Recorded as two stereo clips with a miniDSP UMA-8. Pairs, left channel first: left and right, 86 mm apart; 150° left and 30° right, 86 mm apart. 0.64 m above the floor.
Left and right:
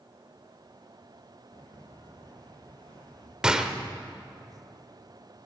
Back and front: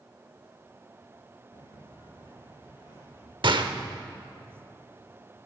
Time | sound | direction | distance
1.5 | footsteps | 130° left | 3.5 m
3.4 | a gunshot | 10° right | 0.9 m